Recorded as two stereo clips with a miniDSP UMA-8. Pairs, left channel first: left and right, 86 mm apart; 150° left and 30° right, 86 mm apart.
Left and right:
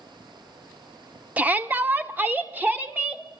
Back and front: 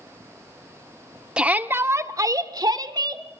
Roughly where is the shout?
Right.